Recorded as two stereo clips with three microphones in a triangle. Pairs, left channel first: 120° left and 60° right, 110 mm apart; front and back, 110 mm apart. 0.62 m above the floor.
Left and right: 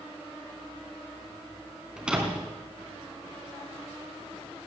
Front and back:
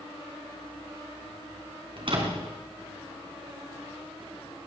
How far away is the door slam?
About 3.5 m.